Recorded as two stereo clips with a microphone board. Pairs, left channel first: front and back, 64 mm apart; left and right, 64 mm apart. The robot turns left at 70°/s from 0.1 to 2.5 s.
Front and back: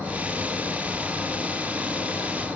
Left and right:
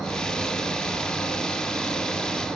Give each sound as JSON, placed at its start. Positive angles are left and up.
{"t": 0.0, "sound": "an insect", "azimuth_deg": 165, "distance_m": 1.9}